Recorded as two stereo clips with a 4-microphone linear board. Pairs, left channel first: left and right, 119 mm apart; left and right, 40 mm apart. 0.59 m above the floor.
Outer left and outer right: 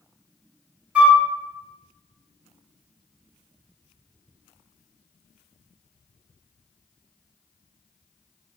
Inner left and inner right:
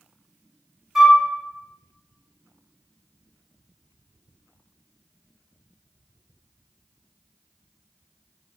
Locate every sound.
0.9 s a flute: 10° right (ahead or behind), 0.7 m